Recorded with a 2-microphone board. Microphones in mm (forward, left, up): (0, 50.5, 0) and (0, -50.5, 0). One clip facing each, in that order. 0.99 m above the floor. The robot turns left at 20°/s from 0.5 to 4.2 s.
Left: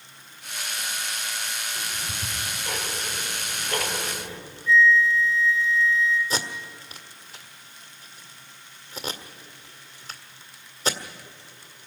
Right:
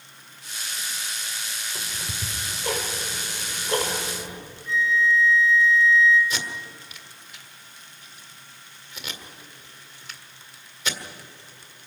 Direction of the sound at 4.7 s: 60° right (ahead or behind).